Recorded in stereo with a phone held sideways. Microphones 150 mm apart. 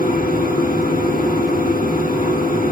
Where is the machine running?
70° left (ahead or behind), 3.5 m.